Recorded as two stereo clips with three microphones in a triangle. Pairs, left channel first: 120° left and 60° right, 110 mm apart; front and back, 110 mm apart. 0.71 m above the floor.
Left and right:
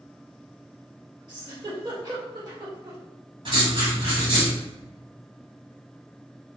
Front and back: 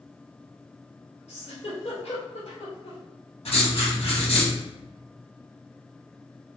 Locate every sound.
1.3 s a giggle: 10° right, 2 m
3.5 s writing: 20° right, 1.7 m